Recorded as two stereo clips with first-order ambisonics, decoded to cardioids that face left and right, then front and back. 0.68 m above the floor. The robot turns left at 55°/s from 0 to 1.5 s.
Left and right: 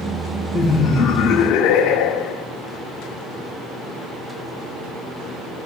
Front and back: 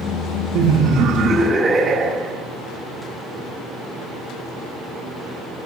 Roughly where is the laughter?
Behind left.